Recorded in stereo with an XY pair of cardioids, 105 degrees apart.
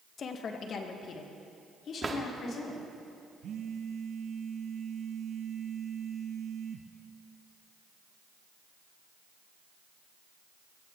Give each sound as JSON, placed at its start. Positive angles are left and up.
{"t": 0.2, "sound": "a woman speaking", "azimuth_deg": 50, "distance_m": 1.4}
{"t": 2.0, "sound": "a drawer", "azimuth_deg": -30, "distance_m": 1.7}
{"t": 3.4, "sound": "a phone buzzing", "azimuth_deg": -60, "distance_m": 1.0}